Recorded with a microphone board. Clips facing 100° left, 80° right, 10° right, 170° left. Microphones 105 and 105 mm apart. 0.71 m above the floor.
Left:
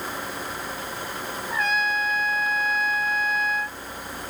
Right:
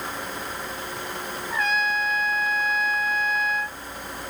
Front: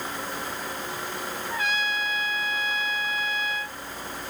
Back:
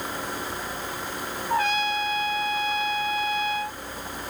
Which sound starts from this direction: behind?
A trumpet, at 1.5 s.